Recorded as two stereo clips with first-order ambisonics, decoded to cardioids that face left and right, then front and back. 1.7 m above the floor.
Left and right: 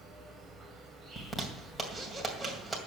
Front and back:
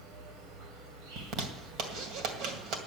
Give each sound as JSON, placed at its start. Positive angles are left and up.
{"t": 0.0, "sound": "an insect", "azimuth_deg": -165, "distance_m": 4.0}
{"t": 1.2, "sound": "a zipper", "azimuth_deg": -175, "distance_m": 2.0}